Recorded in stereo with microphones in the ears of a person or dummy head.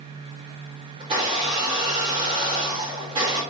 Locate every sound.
1.0 s a blender: 30° right (ahead or behind), 1.1 m